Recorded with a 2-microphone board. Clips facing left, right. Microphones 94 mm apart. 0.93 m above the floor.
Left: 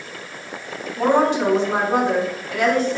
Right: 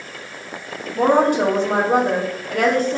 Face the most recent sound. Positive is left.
turn(degrees=-50)  # may be behind; listen again after turning